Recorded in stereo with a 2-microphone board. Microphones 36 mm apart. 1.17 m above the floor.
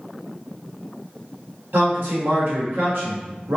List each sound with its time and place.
1.7 s a man speaking: 65° right (ahead or behind), 1.3 m